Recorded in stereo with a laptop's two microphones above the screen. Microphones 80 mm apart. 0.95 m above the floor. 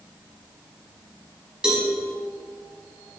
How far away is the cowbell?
About 1.1 m.